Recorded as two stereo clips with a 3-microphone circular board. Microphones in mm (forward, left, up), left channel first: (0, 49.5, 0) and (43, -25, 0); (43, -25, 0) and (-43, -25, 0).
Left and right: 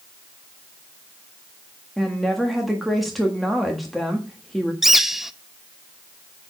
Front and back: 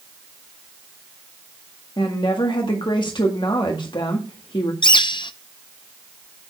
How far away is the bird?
About 0.6 m.